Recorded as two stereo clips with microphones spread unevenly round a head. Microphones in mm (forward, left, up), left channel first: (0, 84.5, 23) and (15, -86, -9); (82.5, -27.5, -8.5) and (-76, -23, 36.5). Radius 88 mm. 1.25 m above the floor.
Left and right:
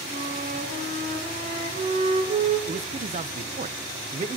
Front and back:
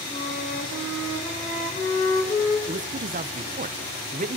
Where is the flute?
40° right, 6.5 m.